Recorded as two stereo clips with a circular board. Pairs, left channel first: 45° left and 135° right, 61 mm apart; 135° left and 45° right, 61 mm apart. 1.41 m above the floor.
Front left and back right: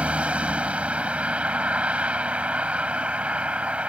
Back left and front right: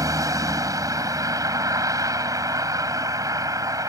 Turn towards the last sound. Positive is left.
turn(degrees=-65)